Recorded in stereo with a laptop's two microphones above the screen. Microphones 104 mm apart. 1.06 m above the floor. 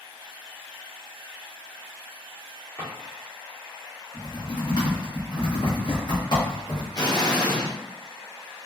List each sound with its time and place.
2.8 s a drawer: 20° left (ahead or behind), 1.0 m
4.1 s typing on a keyboard: 45° left (ahead or behind), 1.1 m
6.9 s an explosion: 40° left (ahead or behind), 0.5 m